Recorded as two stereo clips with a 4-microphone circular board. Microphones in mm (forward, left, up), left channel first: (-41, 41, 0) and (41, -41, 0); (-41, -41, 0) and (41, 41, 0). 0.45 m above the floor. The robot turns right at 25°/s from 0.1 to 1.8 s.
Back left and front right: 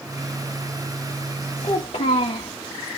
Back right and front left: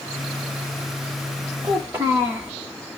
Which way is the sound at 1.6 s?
110° left.